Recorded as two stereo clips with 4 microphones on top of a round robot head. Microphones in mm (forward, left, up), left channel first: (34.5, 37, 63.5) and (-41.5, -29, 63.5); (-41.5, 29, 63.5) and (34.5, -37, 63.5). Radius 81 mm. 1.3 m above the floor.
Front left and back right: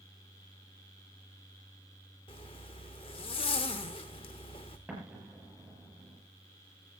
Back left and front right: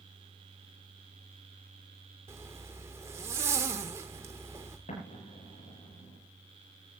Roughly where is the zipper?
Ahead.